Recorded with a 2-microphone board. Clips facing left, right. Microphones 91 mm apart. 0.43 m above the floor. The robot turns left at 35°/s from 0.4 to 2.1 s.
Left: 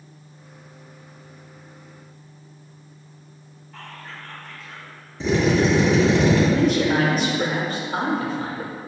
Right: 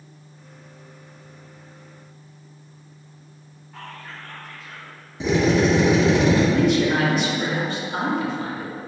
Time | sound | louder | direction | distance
3.7 | whispering | right 1 dB | 5° right (ahead or behind) | 1.5 m
5.2 | a drill | even | 15° right (ahead or behind) | 1.9 m
6.5 | a man speaking | even | 40° left (ahead or behind) | 1.0 m